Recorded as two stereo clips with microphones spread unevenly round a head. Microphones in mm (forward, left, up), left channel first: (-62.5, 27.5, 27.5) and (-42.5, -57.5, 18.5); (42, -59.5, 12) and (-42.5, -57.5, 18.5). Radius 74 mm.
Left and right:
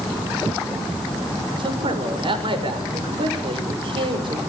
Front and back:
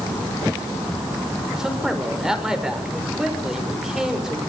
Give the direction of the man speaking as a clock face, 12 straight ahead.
3 o'clock.